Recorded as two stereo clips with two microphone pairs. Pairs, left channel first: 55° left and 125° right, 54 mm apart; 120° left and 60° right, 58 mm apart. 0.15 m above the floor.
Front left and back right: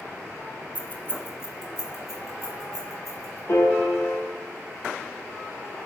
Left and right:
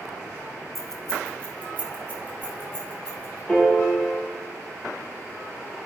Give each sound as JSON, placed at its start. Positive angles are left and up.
{"t": 0.8, "sound": "keys jangling", "azimuth_deg": 30, "distance_m": 0.8}
{"t": 3.5, "sound": "a piano", "azimuth_deg": 45, "distance_m": 2.0}